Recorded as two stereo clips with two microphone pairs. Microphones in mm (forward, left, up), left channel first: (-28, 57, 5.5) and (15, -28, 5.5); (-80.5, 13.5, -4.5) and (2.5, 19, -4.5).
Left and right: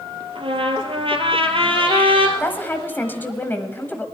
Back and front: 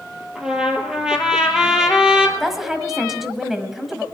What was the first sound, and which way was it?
A trumpet, 80° right.